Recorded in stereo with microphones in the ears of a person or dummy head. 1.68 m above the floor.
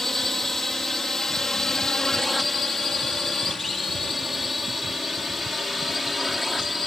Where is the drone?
Centre (ahead or behind).